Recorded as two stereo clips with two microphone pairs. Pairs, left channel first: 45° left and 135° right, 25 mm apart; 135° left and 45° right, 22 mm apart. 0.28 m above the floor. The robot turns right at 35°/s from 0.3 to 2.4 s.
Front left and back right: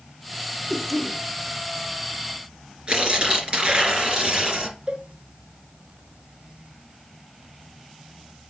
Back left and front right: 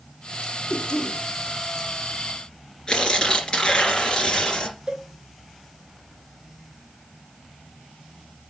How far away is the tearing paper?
About 2.5 m.